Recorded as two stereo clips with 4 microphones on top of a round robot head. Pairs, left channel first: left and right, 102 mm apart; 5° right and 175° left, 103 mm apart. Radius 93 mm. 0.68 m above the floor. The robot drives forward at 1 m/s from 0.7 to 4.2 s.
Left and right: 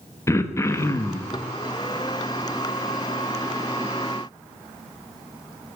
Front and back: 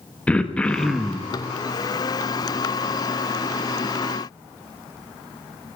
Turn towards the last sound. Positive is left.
turn(degrees=170)